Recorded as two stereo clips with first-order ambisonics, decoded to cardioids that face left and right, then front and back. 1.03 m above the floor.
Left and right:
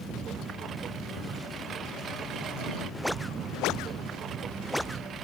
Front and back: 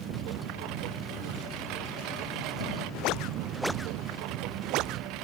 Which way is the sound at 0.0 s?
150° right.